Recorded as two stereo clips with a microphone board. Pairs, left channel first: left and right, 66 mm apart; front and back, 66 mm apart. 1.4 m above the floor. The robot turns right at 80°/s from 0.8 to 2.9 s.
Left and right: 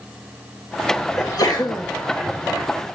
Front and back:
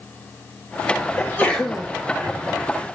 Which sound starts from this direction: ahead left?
A sneeze, at 1.2 s.